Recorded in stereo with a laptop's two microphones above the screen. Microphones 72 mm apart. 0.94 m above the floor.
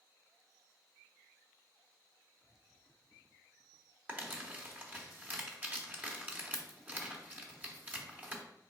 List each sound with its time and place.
4.1 s crumpling: 25° right (ahead or behind), 1.2 m